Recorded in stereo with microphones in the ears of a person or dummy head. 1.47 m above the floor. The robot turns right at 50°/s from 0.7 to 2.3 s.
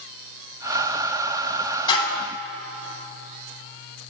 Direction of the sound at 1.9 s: 25° left (ahead or behind).